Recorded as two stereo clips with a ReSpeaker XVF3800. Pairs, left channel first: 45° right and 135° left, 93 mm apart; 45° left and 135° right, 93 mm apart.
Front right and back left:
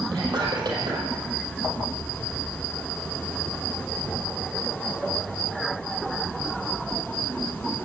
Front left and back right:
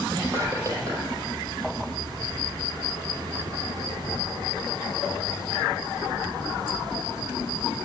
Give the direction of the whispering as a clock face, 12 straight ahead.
6 o'clock.